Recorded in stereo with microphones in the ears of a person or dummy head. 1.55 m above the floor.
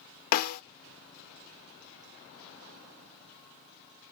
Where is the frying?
I don't hear frying.